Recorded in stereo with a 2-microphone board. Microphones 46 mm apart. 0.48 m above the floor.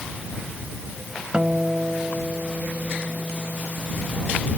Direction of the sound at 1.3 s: 20° right (ahead or behind).